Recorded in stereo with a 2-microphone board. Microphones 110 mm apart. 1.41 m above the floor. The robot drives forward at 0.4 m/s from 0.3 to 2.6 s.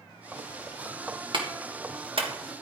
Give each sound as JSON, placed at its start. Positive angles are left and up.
{"t": 1.3, "sound": "a clap", "side_deg": -50, "distance_m": 1.8}